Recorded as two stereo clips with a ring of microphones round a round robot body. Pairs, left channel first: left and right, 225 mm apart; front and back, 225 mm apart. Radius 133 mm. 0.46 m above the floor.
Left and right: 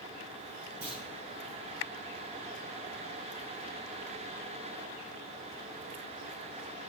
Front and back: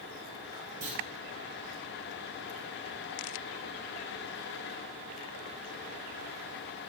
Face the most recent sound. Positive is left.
turn(degrees=-175)